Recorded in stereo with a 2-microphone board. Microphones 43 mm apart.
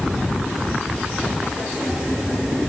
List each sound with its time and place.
Only background noise.